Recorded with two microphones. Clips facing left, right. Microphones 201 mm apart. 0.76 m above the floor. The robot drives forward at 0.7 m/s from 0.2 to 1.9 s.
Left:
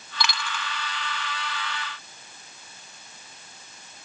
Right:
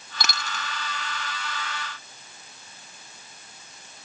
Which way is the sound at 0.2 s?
50° right (ahead or behind).